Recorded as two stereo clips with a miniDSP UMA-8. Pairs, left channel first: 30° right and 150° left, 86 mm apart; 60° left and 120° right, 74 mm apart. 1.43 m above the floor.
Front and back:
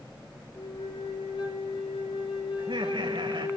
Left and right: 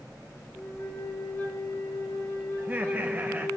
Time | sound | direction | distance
0.6 | a flute | 5° right | 6 m
2.6 | laughter | 170° left | 1.2 m